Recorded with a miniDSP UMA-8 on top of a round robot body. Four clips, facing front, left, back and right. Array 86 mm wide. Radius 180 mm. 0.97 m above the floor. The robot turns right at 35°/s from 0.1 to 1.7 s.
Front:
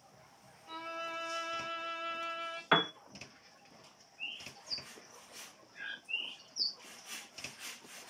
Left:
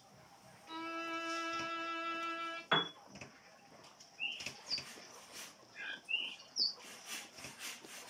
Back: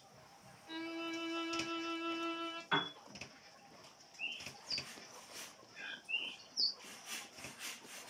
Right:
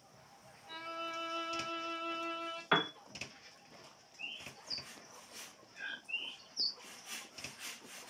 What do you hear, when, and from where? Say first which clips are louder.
0.7 s a violin: left 1 dB, front 1 dB; 5° right, 1.1 m; by 2.6 s 30° left, 1.1 m
2.7 s a piano: right 3 dB, front 7 dB; 20° right, 0.5 m
4.2 s a bird: left 3 dB, even; 55° left, 1.3 m